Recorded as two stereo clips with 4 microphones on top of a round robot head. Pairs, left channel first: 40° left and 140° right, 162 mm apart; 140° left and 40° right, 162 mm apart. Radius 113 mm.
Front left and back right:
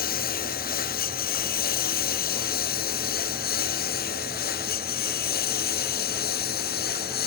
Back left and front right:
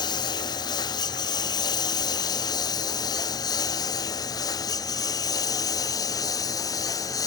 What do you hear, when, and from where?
0.0 s a lawn mower: 75° left; by 7.3 s 70° left